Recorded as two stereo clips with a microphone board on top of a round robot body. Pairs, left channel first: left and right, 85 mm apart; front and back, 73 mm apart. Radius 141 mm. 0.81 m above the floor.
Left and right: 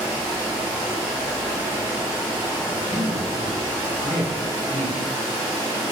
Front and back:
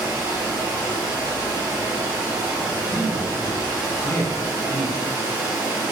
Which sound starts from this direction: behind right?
Running water, at 0.0 s.